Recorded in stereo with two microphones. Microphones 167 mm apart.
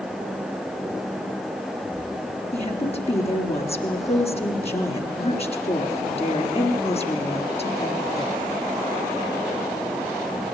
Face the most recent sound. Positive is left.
turn(degrees=40)  # may be behind; listen again after turning